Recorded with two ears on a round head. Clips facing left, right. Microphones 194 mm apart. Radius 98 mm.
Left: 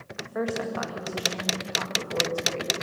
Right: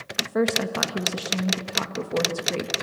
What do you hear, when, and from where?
0.2 s a woman speaking: 60° right (ahead or behind), 1.7 m